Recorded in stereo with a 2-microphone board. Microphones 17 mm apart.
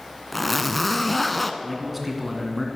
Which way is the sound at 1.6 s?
Centre (ahead or behind).